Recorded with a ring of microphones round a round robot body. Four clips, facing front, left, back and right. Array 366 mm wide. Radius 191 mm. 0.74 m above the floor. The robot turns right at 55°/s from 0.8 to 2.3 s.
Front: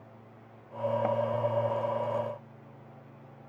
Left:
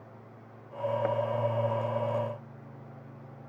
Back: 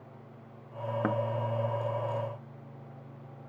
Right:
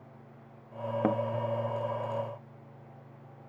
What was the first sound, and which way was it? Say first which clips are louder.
A thud: right 4 dB, back 1 dB; 115° right.